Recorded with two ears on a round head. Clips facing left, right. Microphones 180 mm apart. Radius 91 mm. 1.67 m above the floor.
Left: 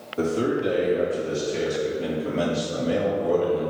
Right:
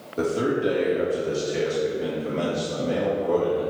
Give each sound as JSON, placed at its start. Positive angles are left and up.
{"t": 0.2, "sound": "a man speaking", "side_deg": -30, "distance_m": 3.0}